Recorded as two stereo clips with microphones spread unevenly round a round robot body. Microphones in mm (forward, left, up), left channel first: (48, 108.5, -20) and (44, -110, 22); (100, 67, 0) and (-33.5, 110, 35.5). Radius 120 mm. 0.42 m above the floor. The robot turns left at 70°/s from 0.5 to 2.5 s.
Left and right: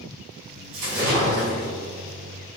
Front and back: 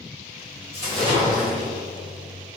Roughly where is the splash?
Behind right.